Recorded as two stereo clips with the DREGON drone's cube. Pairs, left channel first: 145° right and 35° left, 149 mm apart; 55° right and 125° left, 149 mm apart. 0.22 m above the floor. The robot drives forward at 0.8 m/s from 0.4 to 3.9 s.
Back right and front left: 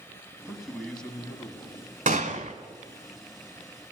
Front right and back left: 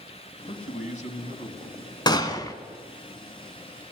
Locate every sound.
0.5 s a man speaking: 50° right, 2 m; by 2.0 s 90° right, 1.8 m
2.1 s a gunshot: 5° left, 1.1 m; by 2.5 s 10° left, 0.7 m